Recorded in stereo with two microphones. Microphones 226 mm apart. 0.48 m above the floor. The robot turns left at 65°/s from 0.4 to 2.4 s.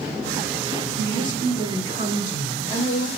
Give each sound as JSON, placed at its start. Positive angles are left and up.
{"t": 1.0, "sound": "a woman speaking", "azimuth_deg": 140, "distance_m": 1.5}